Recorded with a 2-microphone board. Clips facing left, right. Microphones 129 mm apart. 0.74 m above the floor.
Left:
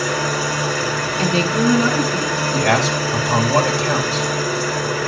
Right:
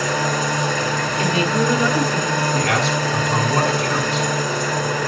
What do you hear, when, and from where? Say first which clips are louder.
0.0 s an engine running: even; 10° left (ahead or behind), 3.5 m
1.2 s a woman speaking: left 2 dB; 25° left (ahead or behind), 7 m
2.5 s a man speaking: left 2 dB; 85° left, 5 m